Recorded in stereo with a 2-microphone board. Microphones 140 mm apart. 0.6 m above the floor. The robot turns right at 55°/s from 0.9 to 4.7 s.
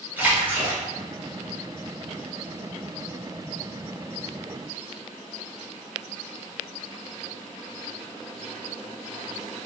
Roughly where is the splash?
Centre.